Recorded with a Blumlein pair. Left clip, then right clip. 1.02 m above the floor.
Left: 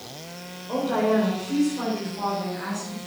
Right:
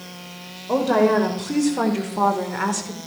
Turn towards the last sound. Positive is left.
turn(degrees=-45)